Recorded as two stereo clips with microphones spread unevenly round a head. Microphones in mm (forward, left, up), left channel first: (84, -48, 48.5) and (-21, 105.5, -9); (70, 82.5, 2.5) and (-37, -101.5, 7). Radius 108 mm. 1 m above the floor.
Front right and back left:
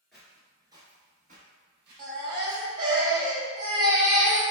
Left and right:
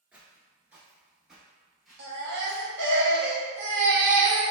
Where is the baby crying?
160° right, 0.7 m.